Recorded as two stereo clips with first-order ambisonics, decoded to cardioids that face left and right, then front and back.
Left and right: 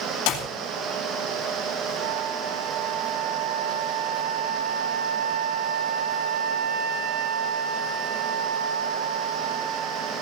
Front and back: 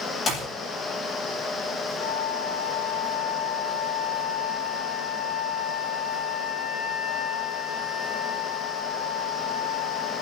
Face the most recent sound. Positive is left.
turn(degrees=-65)